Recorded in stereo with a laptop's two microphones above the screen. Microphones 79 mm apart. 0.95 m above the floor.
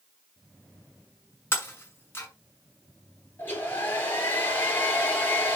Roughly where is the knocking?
I don't hear knocking.